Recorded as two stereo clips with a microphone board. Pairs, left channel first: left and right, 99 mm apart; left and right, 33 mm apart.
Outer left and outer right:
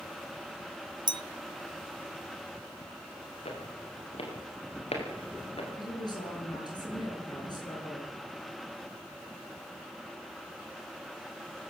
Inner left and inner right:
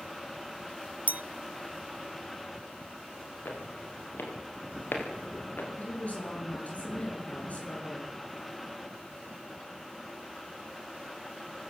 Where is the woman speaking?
50° left (ahead or behind), 10 m.